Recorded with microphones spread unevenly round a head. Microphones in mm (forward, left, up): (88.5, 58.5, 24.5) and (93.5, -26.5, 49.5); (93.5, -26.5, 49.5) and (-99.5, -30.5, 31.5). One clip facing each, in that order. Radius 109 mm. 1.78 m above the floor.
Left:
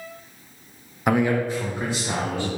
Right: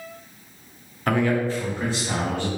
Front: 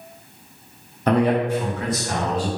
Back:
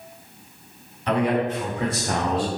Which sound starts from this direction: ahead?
A man speaking, at 1.1 s.